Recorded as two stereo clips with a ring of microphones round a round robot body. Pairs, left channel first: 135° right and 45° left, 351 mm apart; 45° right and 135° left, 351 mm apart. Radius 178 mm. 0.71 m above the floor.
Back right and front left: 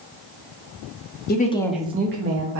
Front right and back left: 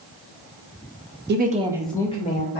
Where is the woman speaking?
Straight behind, 0.6 m; by 2.6 s 10° left, 0.8 m.